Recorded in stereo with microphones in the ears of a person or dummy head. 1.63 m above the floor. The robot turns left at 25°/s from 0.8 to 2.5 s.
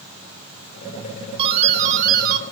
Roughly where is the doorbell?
Right.